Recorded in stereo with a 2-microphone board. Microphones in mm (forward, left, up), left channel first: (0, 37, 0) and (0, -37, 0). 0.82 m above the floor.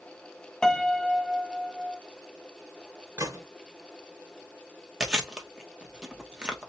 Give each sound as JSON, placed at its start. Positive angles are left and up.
{"t": 0.6, "sound": "a piano", "side_deg": 10, "distance_m": 0.6}
{"t": 3.2, "sound": "a gunshot", "side_deg": -40, "distance_m": 2.0}
{"t": 5.0, "sound": "chewing", "side_deg": -10, "distance_m": 1.1}